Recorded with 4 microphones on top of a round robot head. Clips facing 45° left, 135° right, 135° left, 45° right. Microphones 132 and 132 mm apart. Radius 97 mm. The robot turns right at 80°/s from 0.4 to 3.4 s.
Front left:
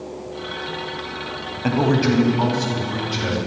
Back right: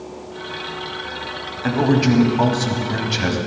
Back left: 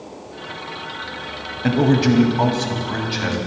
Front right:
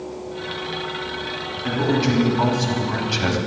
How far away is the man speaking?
About 2.5 m.